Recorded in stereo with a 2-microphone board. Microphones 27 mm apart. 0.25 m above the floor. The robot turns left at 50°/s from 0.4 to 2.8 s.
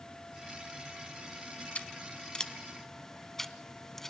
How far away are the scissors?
About 0.9 m.